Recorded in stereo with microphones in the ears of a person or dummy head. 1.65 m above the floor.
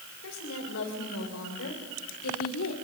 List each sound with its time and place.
0.2 s a woman speaking: 80° left, 6.5 m